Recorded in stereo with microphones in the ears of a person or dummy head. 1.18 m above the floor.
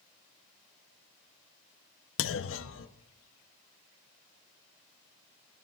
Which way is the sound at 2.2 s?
55° left (ahead or behind).